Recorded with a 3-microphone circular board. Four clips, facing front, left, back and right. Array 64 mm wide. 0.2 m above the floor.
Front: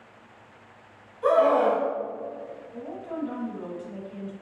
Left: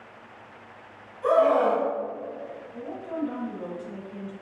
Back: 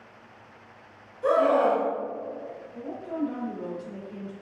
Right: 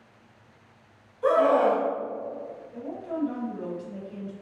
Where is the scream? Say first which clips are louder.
Even, front 1 dB; 5° right, 1.8 m.